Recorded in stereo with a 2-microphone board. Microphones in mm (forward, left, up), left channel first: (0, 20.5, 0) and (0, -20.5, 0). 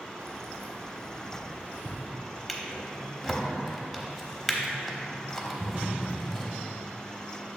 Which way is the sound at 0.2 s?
75° right (ahead or behind).